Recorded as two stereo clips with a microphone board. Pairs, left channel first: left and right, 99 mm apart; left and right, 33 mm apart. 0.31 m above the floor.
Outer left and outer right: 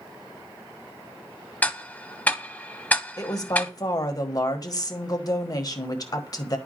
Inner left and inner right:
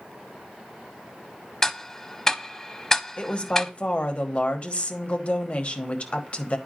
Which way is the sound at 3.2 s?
40° left (ahead or behind).